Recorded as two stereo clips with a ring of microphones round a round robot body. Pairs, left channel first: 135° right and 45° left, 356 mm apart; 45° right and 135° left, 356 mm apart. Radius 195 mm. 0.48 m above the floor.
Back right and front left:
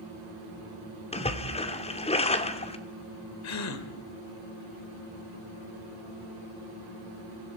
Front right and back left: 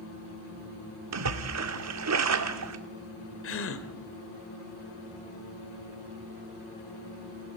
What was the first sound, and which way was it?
A splash, 155° left.